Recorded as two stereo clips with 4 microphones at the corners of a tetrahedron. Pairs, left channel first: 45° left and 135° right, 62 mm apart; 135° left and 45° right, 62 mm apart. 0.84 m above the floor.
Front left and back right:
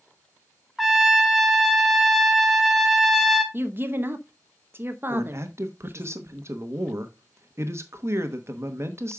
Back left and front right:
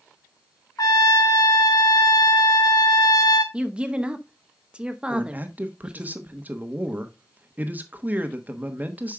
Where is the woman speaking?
110° right, 0.9 m.